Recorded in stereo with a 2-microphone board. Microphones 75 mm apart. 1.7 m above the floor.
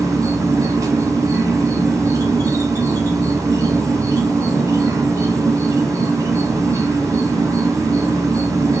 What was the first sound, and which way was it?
An insect, 50° right (ahead or behind).